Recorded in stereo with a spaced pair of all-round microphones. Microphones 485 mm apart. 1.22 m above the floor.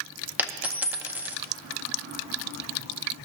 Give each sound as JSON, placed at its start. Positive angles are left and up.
{"t": 0.4, "sound": "a dropped coin", "side_deg": -5, "distance_m": 0.7}